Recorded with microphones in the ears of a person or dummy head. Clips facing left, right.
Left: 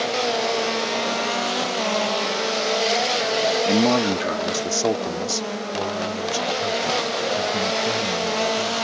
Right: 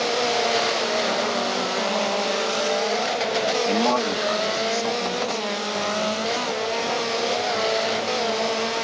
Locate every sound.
3.6 s a man speaking: 15° left (ahead or behind); by 8.7 s 85° left